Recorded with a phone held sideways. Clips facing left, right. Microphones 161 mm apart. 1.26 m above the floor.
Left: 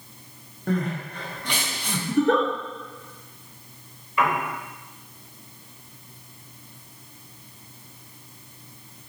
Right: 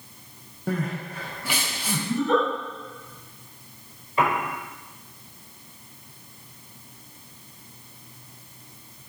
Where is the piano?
35° right (ahead or behind), 1.3 m.